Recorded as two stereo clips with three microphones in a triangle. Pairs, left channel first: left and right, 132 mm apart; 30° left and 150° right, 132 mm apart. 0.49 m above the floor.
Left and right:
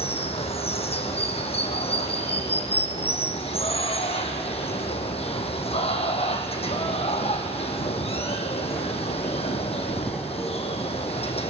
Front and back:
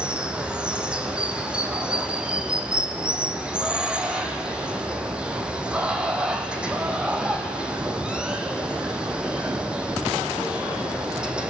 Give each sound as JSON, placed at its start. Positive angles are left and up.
{"t": 0.0, "sound": "running water", "azimuth_deg": 125, "distance_m": 1.7}